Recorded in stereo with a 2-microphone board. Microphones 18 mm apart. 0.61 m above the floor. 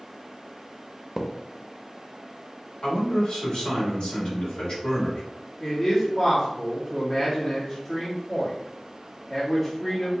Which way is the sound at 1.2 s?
45° right (ahead or behind).